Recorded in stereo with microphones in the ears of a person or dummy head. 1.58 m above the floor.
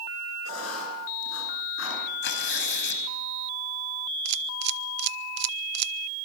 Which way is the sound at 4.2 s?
65° right (ahead or behind).